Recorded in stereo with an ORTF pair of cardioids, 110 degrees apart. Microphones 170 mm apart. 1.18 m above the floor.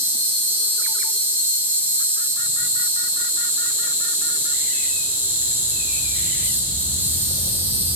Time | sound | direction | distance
0.0 | an insect | 10° right | 1.7 m